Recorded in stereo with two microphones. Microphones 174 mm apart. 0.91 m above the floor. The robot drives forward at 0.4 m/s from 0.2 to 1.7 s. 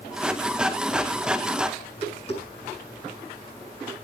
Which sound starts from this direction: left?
Tapping, at 1.8 s.